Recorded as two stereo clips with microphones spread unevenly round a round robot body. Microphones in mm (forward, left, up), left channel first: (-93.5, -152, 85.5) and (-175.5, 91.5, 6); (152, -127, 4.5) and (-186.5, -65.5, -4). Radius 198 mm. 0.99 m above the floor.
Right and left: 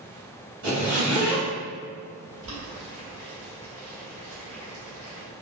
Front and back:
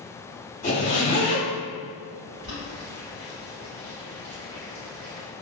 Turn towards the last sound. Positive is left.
turn(degrees=95)